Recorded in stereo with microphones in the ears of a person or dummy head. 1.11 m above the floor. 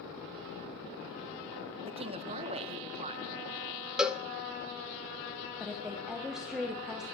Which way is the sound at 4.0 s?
5° right (ahead or behind).